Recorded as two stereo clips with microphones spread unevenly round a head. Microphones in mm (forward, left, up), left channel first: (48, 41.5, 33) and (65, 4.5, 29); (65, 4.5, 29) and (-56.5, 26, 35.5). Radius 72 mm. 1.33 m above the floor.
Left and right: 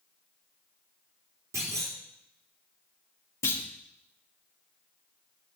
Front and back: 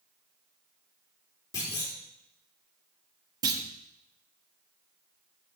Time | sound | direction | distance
1.5 | a clunk | 75° right | 4 m
3.4 | a clunk | 110° left | 1.2 m